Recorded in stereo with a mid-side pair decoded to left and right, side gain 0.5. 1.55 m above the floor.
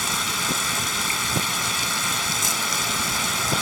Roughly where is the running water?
Ahead.